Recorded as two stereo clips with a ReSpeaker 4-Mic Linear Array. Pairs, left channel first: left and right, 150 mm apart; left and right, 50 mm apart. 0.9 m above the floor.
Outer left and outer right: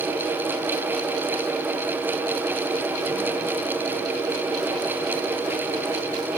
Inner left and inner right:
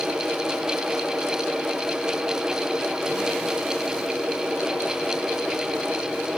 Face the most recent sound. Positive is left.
No sound to turn to.